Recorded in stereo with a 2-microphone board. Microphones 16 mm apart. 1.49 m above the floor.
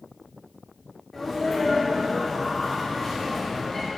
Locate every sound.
1.1 s a sneeze: 20° left (ahead or behind), 1.0 m